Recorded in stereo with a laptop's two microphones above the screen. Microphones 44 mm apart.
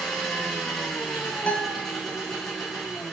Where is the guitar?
40° left (ahead or behind), 0.7 m.